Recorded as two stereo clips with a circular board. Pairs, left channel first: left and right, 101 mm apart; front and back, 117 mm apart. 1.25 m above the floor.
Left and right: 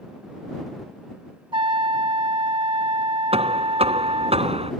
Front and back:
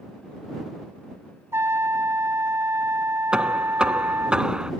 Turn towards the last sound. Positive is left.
turn(degrees=-95)